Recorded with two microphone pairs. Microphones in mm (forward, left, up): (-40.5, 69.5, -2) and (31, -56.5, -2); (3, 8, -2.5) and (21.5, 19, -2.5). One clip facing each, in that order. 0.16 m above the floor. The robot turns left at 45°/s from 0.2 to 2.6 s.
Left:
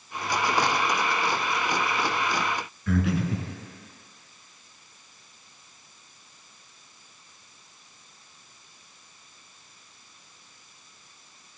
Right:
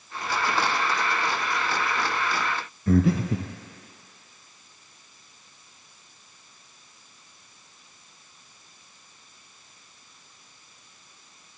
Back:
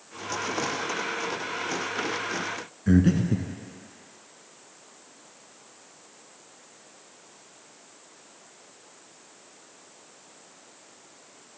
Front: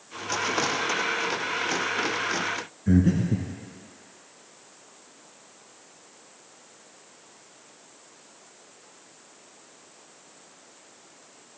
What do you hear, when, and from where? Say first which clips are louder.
2.9 s breathing: right 4 dB, back 1 dB; 100° right, 0.7 m